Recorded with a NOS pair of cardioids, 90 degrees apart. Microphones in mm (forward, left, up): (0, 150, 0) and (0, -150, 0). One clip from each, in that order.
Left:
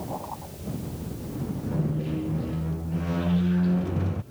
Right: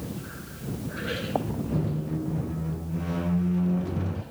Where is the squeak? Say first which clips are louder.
Left 3 dB; 10° left.